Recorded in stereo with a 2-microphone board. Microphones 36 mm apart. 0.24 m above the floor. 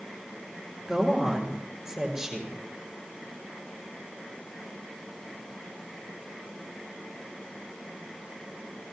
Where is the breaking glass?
I don't hear breaking glass.